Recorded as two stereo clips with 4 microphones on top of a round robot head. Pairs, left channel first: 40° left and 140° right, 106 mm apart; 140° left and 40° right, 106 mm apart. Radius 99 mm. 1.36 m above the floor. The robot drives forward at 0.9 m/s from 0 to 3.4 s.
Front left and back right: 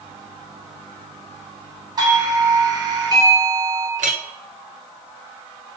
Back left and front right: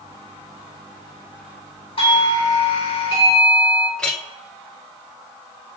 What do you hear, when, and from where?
2.0 s a doorbell: 170° left, 4 m; by 3.9 s 175° left, 5 m
4.0 s a clink: 140° right, 0.8 m